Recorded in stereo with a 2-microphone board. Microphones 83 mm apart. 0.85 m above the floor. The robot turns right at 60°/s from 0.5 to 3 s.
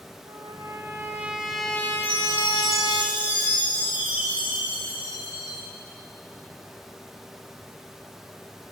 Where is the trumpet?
60° right, 2 m; by 3.0 s 90° left, 2 m.